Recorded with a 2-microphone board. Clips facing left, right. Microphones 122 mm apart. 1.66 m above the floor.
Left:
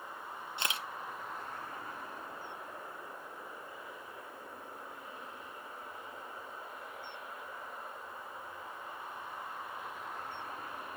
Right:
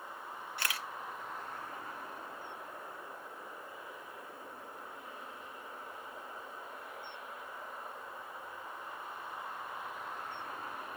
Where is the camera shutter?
20° left (ahead or behind), 0.8 m.